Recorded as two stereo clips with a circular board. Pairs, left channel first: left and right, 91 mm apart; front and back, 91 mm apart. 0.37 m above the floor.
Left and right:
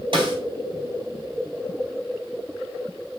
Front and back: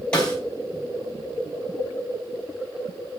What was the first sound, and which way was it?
A snare drum, 80° right.